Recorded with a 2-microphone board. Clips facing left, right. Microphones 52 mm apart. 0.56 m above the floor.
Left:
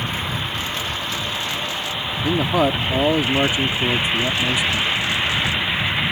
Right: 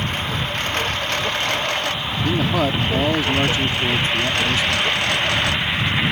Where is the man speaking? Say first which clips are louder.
Left 2 dB; 15° left (ahead or behind).